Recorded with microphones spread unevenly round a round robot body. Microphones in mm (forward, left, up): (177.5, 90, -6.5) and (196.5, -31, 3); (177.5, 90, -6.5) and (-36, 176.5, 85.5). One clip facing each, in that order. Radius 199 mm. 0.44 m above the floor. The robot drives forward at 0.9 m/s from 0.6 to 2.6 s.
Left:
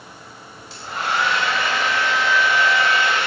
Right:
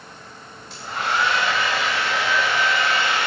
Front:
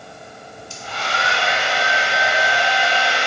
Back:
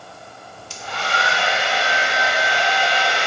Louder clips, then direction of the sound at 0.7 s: Even, back 1 dB; 170° right.